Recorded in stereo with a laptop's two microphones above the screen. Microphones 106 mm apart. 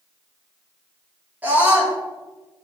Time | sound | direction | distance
1.4 | a scream | 15° right (ahead or behind) | 2.5 m